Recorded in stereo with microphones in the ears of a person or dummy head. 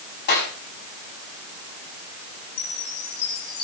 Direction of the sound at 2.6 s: 75° left (ahead or behind).